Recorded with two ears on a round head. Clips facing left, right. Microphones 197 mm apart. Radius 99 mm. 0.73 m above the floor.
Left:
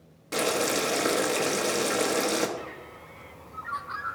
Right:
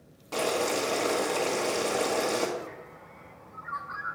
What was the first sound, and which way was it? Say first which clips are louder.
Boiling: left 1 dB; 25° left (ahead or behind).